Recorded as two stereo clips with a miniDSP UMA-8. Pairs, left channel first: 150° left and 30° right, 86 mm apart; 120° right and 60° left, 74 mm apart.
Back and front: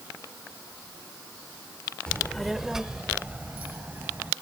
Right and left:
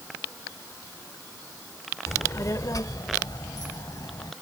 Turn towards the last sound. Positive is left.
turn(degrees=-95)